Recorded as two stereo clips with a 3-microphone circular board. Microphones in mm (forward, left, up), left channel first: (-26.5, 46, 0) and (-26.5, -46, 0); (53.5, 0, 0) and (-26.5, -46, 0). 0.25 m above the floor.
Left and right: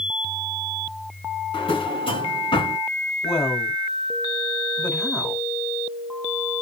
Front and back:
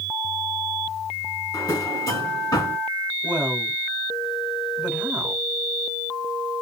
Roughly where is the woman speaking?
Behind left.